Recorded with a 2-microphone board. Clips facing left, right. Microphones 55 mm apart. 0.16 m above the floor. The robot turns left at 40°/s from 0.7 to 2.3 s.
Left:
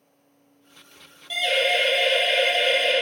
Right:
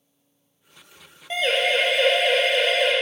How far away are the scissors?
No scissors in this recording.